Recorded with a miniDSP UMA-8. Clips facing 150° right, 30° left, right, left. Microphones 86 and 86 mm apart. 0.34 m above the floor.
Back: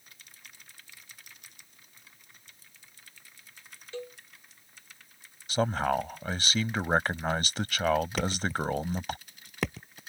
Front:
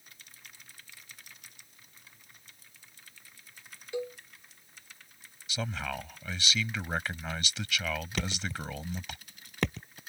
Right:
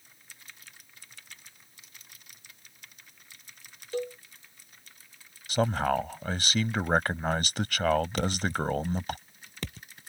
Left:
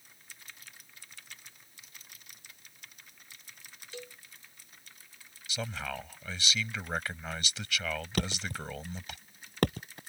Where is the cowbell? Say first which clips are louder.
Front 5 dB, right 14 dB; 45° right.